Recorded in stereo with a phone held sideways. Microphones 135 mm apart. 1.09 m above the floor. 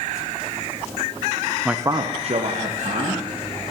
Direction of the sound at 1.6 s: 5° right (ahead or behind).